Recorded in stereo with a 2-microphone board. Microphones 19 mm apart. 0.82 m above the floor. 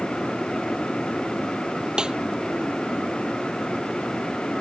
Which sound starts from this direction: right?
A snare drum, at 2.0 s.